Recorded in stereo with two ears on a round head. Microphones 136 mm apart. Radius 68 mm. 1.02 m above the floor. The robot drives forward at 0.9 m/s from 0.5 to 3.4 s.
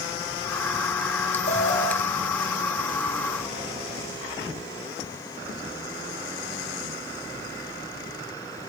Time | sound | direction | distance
1.5 | an alarm | 50° left (ahead or behind) | 3.5 m